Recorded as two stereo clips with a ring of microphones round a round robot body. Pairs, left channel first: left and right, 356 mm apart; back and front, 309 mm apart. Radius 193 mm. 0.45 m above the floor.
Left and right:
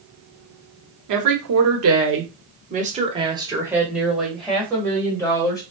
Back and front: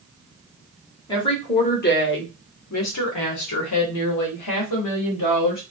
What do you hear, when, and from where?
1.1 s a woman speaking: 105° right, 1.3 m; by 5.6 s 170° left, 2.5 m